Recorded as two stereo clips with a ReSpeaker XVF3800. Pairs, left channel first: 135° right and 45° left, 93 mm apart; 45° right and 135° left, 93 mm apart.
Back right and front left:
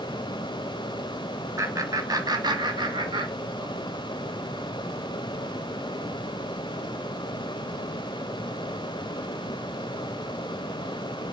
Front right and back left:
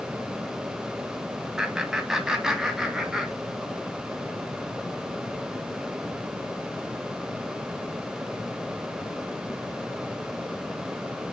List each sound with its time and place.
1.6 s laughter: 55° left, 1.8 m; by 3.9 s 50° left, 3 m